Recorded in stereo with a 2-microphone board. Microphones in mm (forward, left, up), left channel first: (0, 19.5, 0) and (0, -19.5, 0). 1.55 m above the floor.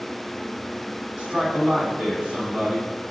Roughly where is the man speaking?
Right.